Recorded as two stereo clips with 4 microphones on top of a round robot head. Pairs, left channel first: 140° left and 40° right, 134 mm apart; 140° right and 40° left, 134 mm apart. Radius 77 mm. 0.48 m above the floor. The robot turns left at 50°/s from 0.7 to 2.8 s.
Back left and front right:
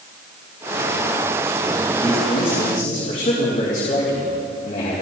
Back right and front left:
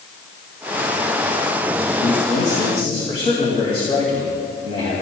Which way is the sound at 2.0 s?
150° right.